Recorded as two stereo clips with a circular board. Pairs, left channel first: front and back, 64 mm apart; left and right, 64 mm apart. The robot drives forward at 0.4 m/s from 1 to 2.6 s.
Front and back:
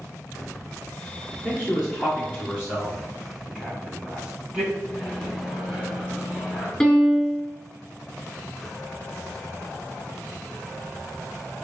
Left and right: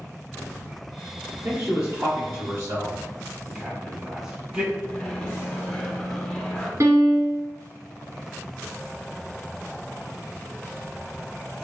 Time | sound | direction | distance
1.4 | a man speaking | 90° right | 1.8 m
3.5 | a man speaking | 145° right | 1.1 m
4.9 | a microwave | 115° left | 0.9 m
6.8 | a piano | 85° right | 2.0 m